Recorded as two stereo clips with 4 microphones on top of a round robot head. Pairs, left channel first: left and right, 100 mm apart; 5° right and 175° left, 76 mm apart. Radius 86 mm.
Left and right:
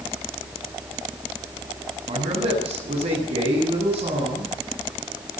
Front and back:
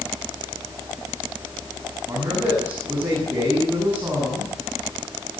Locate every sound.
2.1 s a man speaking: 115° right, 9.5 m